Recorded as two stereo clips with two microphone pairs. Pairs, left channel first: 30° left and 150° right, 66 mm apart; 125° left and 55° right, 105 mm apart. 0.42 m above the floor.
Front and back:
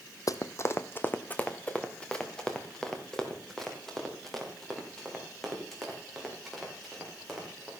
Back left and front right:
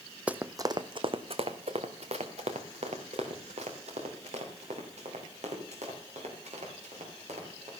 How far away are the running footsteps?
About 0.7 m.